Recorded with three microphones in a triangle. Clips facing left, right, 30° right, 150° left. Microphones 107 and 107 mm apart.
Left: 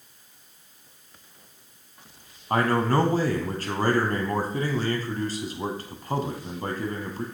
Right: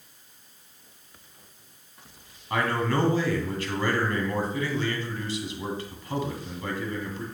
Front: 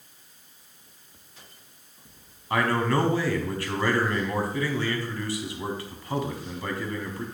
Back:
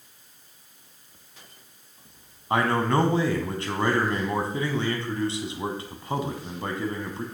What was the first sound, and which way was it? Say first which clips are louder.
A man speaking: left 4 dB, back 1 dB; 100° left.